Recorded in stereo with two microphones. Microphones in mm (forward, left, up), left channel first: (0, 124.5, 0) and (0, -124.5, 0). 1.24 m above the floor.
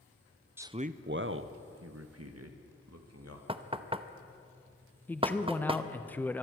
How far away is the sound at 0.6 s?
About 0.6 m.